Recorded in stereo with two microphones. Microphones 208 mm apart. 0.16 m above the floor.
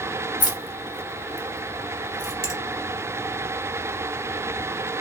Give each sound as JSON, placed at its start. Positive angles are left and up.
{"t": 0.4, "sound": "keys jangling", "side_deg": 40, "distance_m": 0.9}
{"t": 2.4, "sound": "a finger snap", "side_deg": -50, "distance_m": 1.3}